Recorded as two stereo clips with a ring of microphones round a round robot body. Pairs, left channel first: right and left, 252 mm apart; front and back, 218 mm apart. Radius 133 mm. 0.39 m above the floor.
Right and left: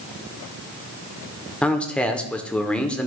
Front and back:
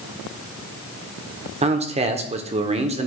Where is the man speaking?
170° right, 0.8 m.